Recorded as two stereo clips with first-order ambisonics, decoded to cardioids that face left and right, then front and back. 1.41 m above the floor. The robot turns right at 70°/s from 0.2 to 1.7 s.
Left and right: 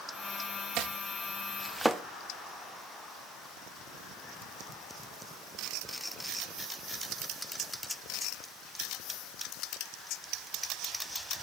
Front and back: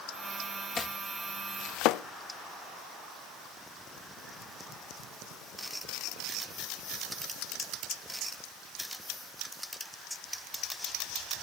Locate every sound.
0.8 s chopping: 70° right, 0.6 m; by 2.0 s 5° right, 0.6 m